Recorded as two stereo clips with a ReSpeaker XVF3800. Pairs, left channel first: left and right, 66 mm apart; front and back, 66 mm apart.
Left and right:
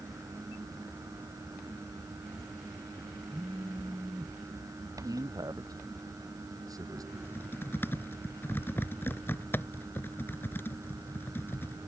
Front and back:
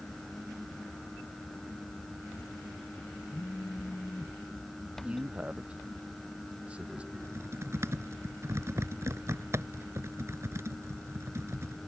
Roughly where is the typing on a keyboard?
Behind left.